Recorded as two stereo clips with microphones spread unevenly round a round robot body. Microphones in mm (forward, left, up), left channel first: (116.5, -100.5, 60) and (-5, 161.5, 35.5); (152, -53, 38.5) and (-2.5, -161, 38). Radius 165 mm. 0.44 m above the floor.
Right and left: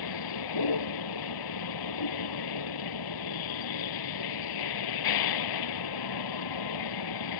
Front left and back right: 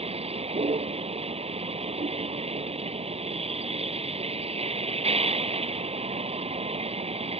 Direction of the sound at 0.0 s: 85° right.